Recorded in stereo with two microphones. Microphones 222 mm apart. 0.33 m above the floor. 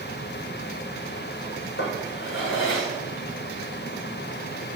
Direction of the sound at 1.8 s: 65° left (ahead or behind).